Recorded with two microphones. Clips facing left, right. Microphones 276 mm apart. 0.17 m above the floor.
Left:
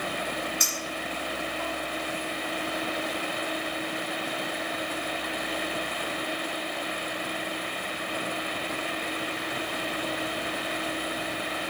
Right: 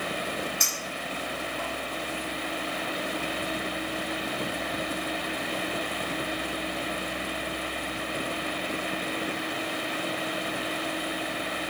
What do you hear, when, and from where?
0.6 s a clink: 10° left (ahead or behind), 1.2 m